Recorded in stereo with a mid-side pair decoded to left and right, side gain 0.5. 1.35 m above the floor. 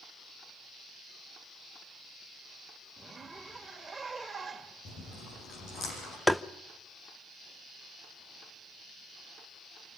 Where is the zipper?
20° right, 2.5 m.